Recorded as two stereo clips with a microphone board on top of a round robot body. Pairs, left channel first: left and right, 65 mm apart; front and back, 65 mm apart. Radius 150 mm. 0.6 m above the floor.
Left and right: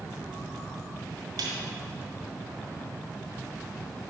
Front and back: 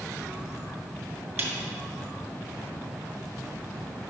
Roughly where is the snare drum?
Behind right.